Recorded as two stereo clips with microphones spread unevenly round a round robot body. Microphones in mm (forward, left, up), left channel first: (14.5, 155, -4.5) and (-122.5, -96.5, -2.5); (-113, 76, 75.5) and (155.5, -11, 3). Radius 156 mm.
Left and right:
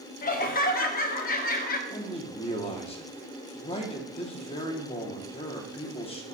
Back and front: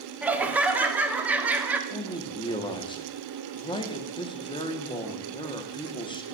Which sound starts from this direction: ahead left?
Laughter, at 0.2 s.